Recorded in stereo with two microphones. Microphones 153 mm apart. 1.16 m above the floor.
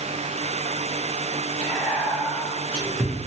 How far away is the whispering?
About 0.9 m.